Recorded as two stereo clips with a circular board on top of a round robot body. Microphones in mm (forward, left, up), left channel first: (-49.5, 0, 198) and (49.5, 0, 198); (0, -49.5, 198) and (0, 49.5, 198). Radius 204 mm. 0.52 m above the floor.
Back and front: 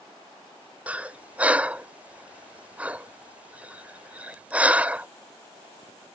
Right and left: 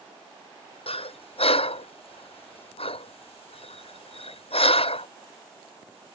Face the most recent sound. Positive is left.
turn(degrees=-75)